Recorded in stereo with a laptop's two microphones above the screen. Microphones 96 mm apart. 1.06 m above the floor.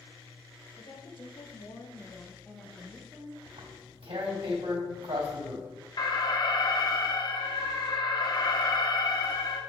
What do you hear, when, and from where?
0.8 s a woman speaking: 65° left (ahead or behind), 2.0 m; by 3.4 s 10° right (ahead or behind), 2.5 m
3.5 s tearing paper: 75° right (ahead or behind), 2.5 m
6.0 s an alarm: 50° left (ahead or behind), 1.0 m